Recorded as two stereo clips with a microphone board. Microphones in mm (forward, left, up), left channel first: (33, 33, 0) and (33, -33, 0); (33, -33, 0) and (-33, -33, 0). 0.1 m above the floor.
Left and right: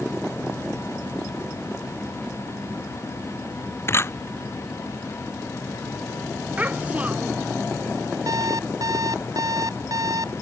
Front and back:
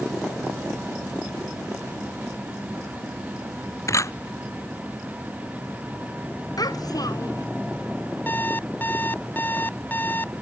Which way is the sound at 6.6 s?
20° right.